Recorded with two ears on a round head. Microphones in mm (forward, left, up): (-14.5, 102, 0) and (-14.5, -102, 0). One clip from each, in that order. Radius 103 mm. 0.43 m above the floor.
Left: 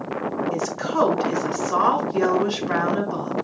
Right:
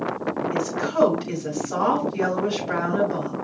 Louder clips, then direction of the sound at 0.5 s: Even; 80° left.